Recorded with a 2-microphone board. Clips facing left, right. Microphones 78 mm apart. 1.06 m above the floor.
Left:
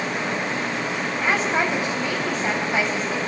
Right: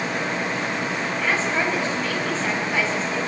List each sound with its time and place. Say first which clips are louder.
1.2 s a woman speaking: left 2 dB; 20° left (ahead or behind), 7.5 m